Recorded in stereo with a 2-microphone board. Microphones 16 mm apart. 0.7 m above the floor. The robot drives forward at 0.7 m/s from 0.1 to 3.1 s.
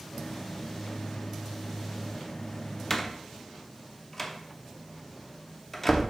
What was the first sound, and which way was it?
A door slam, 15° left (ahead or behind).